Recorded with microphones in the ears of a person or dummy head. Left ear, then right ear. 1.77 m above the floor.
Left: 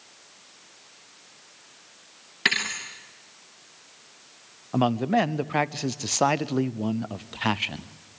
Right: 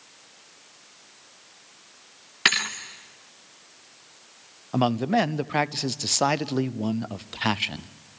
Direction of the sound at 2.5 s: 10° right (ahead or behind).